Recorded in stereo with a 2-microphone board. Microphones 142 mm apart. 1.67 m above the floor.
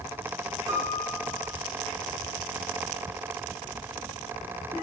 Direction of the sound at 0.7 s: 20° right (ahead or behind).